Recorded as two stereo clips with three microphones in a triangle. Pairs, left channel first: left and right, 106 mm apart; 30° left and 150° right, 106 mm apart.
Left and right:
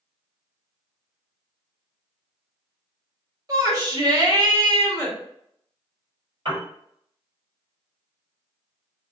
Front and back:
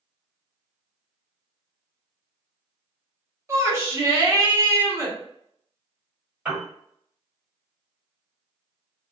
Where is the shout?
110° right, 1.1 m.